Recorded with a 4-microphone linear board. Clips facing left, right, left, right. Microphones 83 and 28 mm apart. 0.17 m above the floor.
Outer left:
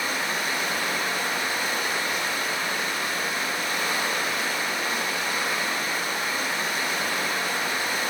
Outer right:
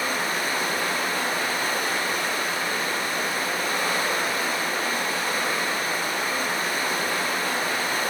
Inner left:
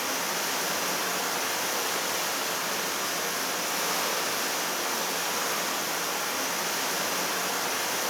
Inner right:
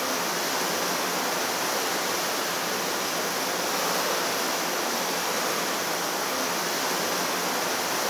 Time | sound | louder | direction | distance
0.0 | running water | outer right 2 dB, inner right 2 dB | 40° right (ahead or behind) | 1.9 m